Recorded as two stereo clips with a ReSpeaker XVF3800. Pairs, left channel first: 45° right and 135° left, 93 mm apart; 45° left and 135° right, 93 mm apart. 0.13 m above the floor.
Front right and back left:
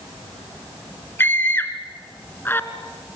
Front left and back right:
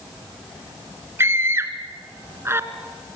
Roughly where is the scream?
Right.